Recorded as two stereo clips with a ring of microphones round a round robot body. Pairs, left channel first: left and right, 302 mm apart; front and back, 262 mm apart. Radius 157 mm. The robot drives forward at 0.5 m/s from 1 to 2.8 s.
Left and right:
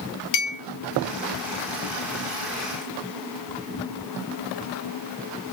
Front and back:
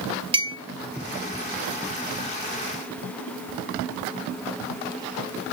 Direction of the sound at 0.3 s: 110° left.